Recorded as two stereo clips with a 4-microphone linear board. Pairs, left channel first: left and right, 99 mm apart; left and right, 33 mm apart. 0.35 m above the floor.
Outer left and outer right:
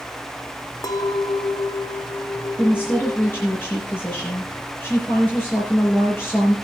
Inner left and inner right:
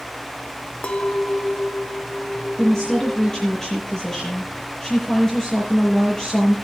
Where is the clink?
40° left (ahead or behind), 0.8 m.